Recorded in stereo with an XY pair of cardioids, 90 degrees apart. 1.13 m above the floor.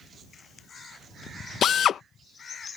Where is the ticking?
No ticking in this recording.